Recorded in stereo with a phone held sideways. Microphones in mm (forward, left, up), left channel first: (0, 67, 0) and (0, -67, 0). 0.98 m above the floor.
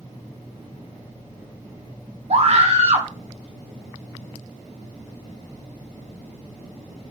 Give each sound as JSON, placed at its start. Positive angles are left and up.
{"t": 2.3, "sound": "a scream", "side_deg": -50, "distance_m": 0.7}